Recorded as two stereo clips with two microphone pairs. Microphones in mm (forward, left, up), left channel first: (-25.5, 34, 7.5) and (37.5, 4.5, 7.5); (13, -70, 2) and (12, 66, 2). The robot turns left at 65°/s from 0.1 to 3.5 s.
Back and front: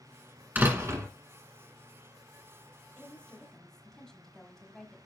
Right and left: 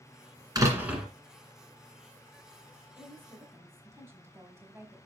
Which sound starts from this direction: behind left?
A woman speaking, at 3.0 s.